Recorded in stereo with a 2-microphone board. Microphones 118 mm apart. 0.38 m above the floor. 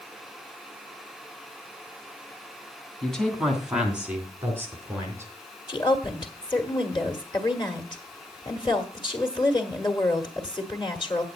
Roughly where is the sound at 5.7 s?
Left.